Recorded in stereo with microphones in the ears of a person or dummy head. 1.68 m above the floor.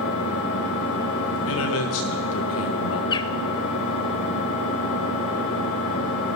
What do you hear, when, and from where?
0.0 s an engine running: 55° left (ahead or behind), 2 m
1.5 s a man speaking: 80° left, 1.8 m
3.1 s a bird: 25° left (ahead or behind), 0.6 m